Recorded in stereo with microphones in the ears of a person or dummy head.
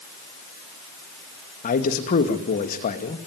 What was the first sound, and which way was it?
A man speaking, 40° left (ahead or behind).